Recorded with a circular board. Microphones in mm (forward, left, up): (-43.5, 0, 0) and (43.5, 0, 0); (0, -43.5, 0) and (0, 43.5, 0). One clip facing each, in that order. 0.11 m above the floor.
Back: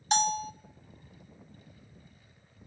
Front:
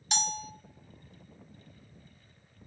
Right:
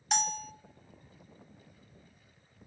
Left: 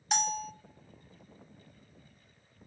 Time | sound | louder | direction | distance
0.1 | a bell | back 7 dB, left 1 dB | straight behind | 0.6 m